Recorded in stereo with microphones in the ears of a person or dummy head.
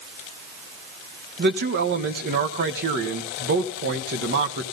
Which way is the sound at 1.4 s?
55° right (ahead or behind).